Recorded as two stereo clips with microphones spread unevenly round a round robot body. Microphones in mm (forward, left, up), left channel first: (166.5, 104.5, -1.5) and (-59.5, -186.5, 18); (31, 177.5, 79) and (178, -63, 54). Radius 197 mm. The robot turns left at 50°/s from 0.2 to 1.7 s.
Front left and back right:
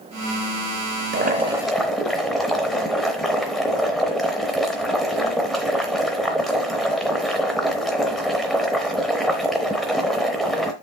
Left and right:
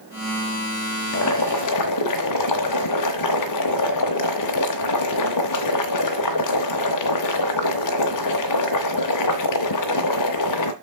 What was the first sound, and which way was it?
Boiling, 170° left.